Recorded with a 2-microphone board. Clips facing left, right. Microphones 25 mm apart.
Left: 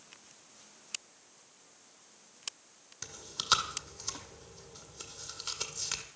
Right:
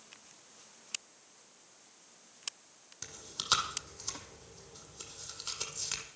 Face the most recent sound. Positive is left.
turn(degrees=10)  # may be behind; listen again after turning